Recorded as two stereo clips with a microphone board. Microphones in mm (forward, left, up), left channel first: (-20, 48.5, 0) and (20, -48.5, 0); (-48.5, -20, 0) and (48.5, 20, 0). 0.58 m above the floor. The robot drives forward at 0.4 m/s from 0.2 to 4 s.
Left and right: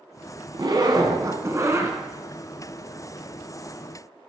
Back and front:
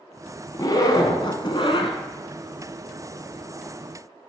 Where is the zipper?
105° right, 1.2 m; by 2.0 s 130° right, 1.5 m.